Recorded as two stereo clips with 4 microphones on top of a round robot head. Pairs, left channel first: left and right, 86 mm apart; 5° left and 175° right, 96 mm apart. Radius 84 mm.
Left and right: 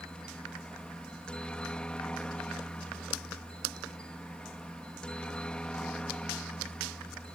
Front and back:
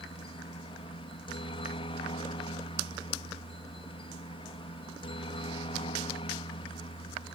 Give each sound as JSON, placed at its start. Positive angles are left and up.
{"t": 0.0, "sound": "a helicopter", "azimuth_deg": 10}